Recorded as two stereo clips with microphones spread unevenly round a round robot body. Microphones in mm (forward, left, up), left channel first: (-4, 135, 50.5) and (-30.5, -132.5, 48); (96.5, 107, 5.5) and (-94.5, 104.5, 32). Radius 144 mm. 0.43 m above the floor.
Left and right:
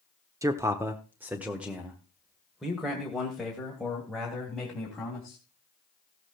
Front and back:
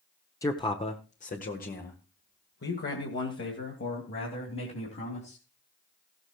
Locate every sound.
0.4 s a man speaking: 30° right, 0.9 m; by 5.4 s 5° right, 3.5 m